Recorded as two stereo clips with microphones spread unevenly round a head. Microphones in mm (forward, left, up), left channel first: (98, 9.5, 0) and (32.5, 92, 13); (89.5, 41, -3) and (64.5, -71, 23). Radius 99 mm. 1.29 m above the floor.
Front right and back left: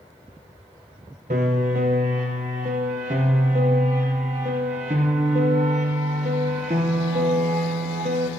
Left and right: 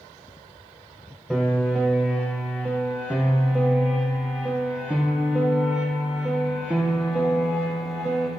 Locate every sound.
1.3 s a piano: 165° left, 0.7 m